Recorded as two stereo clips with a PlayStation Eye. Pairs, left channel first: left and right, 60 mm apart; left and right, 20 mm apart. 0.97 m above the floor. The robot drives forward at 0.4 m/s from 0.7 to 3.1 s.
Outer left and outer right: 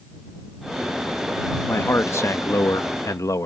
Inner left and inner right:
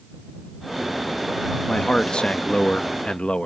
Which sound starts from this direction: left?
A man speaking, at 1.7 s.